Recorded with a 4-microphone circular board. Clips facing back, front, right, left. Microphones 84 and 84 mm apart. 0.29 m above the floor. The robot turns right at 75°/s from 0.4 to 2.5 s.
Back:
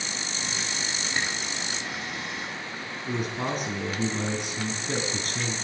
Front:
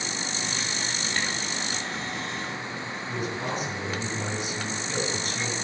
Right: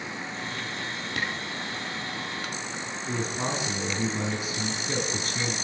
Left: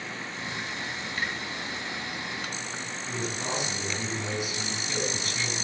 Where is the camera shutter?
105° right, 4 m; by 1.3 s 95° right, 4 m.